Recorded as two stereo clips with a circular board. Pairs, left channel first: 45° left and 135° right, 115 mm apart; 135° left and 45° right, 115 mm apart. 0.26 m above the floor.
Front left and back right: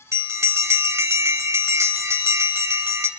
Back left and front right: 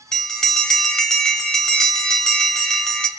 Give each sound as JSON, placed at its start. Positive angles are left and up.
{"t": 0.1, "sound": "a bell", "azimuth_deg": -145, "distance_m": 1.4}